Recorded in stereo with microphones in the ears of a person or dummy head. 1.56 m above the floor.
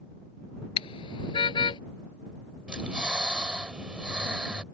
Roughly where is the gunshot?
No gunshot in this recording.